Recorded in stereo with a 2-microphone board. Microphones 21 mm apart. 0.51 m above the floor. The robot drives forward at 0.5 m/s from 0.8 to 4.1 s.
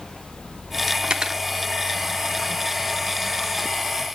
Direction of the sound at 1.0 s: 40° right (ahead or behind).